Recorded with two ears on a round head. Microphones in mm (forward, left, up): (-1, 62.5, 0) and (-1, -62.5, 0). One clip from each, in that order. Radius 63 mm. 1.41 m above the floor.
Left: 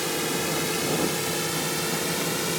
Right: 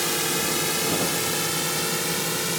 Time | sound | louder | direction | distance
0.0 | a drone | right 2 dB | 25° right (ahead or behind) | ?